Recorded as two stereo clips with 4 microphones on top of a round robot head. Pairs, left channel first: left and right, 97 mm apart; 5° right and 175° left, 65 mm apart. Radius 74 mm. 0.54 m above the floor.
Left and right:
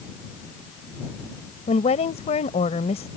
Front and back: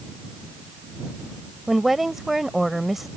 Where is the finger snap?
I don't hear a finger snap.